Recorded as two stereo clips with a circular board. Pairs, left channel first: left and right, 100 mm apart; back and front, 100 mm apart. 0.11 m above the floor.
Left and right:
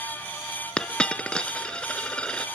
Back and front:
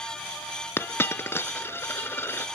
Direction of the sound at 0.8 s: 155° left.